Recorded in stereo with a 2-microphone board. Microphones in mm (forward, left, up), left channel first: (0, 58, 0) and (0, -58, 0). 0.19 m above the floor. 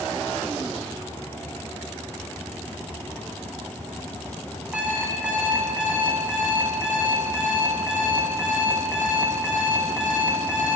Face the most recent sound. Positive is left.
turn(degrees=-10)  # may be behind; listen again after turning